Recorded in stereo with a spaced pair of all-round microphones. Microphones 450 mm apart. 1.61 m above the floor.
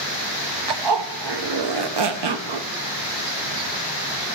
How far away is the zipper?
About 0.6 m.